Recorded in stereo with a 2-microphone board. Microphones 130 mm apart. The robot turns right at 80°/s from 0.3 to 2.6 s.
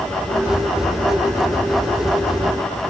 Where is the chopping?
No chopping in this recording.